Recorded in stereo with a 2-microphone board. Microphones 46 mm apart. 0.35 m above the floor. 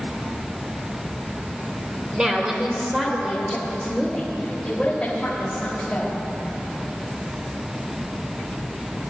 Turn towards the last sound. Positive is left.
turn(degrees=25)  # may be behind; listen again after turning